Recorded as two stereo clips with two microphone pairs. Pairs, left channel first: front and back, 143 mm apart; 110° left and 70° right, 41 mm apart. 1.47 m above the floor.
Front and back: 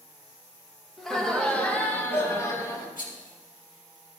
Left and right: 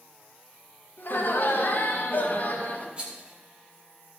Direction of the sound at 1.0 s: 90° left.